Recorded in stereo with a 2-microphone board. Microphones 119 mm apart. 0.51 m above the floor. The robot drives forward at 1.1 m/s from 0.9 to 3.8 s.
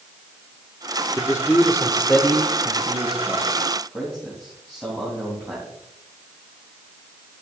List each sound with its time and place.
1.2 s a man speaking: 25° left (ahead or behind), 1.0 m; by 5.7 s 5° left (ahead or behind), 3.5 m